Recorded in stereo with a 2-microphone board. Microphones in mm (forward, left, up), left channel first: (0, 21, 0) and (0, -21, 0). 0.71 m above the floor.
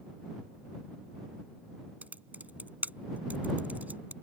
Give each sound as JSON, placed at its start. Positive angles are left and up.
{"t": 2.0, "sound": "typing on a keyboard", "side_deg": -40}